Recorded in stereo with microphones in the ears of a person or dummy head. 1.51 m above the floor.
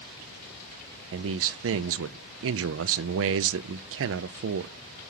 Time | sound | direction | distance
1.1 | a man speaking | 60° right (ahead or behind) | 0.5 m